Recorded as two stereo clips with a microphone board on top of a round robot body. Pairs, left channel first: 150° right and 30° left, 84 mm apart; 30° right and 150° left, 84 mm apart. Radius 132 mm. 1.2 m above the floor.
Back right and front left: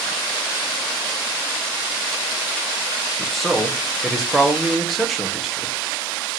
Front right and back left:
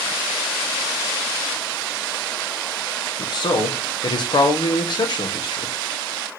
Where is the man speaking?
60° right, 1.3 m.